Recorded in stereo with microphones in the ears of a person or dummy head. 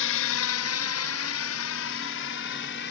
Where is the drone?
60° left (ahead or behind).